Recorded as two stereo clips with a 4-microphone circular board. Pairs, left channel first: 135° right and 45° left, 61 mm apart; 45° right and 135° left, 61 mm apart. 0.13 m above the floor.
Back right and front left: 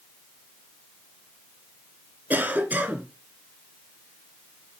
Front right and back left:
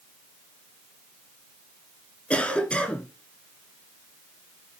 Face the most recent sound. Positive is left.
turn(degrees=10)